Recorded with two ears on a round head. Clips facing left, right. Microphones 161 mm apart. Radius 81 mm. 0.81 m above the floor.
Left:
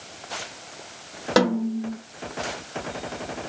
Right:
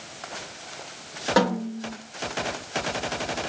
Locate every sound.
1.4 s a snare drum: 30° left (ahead or behind), 1.7 m